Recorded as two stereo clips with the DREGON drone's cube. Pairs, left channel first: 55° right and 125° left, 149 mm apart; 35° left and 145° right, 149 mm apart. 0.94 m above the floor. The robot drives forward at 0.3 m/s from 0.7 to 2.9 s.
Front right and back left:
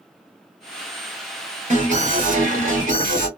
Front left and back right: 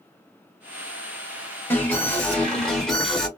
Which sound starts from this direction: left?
An alarm, at 1.7 s.